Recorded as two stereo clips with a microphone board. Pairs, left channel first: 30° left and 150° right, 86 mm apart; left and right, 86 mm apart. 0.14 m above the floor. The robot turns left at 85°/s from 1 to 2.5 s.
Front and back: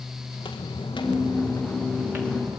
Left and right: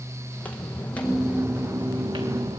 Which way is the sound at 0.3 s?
15° left.